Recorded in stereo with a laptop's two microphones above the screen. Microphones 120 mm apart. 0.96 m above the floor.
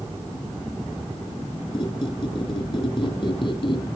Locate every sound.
1.7 s a squeak: 45° left (ahead or behind), 1.6 m